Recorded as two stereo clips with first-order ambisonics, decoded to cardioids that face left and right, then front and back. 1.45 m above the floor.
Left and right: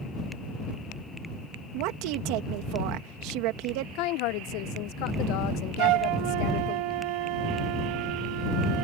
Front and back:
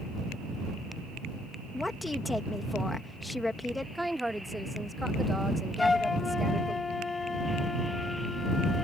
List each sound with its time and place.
1.7 s a woman speaking: 80° right
4.0 s a woman speaking: 90° left
5.8 s a flute: 75° right